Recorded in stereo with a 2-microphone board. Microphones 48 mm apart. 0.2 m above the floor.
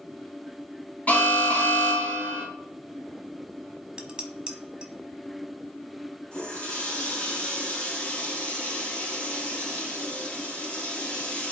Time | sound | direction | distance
1.1 | an alarm | 30° left (ahead or behind) | 2 m
4.0 | dishes clattering | 20° right (ahead or behind) | 0.9 m
6.3 | a running tap | 20° left (ahead or behind) | 3 m